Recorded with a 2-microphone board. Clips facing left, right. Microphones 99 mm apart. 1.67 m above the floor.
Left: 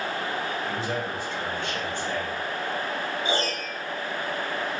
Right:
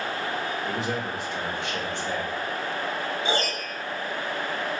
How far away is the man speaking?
About 2.5 m.